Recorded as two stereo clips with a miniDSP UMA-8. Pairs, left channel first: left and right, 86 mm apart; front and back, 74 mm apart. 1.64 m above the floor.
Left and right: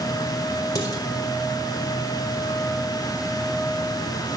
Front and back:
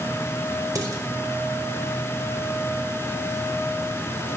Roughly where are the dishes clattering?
Behind left.